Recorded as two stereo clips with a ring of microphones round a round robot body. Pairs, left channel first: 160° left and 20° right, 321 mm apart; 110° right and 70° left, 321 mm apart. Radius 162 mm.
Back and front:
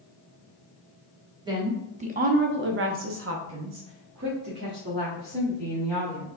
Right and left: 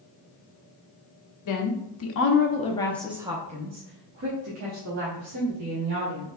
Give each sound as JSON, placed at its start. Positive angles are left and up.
{"t": 1.4, "sound": "a woman speaking", "azimuth_deg": -100, "distance_m": 1.1}